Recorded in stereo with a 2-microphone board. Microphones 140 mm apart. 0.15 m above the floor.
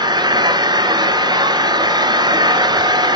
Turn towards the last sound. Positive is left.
turn(degrees=-30)  # may be behind; listen again after turning